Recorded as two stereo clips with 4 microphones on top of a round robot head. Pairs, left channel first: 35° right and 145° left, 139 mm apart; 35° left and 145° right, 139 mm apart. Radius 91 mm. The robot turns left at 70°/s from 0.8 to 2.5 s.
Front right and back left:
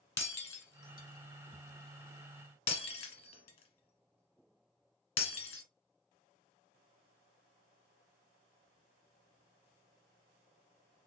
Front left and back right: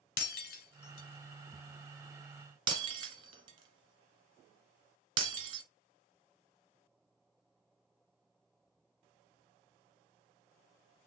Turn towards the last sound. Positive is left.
turn(degrees=-85)